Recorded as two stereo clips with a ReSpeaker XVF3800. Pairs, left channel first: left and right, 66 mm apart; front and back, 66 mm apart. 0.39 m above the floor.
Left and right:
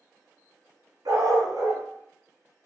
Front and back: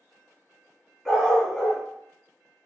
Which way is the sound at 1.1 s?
90° right.